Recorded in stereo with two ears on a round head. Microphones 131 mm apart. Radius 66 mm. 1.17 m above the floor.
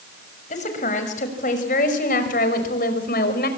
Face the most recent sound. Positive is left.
turn(degrees=75)  # may be behind; listen again after turning